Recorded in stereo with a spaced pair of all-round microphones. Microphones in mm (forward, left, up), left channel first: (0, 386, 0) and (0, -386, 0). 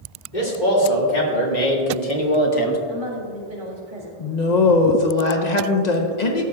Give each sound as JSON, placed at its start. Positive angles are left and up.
{"t": 0.3, "sound": "a man speaking", "side_deg": 75, "distance_m": 2.5}
{"t": 2.9, "sound": "a woman speaking", "side_deg": -85, "distance_m": 2.0}
{"t": 4.2, "sound": "a woman speaking", "side_deg": 60, "distance_m": 1.2}